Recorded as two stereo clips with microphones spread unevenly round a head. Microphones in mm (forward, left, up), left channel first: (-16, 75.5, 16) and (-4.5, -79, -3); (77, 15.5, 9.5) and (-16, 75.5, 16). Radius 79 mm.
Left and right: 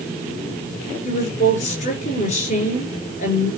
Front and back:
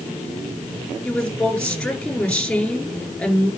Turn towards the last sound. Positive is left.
turn(degrees=50)